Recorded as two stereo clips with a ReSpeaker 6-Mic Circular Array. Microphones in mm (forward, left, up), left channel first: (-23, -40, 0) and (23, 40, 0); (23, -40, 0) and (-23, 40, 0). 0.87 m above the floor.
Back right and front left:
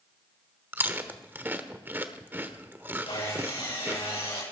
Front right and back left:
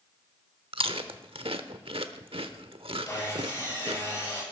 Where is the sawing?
115° right, 9.5 m.